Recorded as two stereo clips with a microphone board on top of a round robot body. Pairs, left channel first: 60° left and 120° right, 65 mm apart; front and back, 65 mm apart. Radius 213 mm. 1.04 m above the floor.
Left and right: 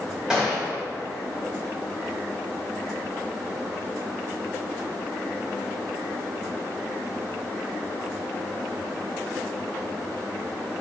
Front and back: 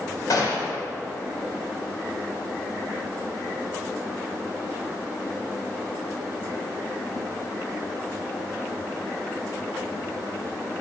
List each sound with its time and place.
0.3 s a gunshot: 40° right, 2.5 m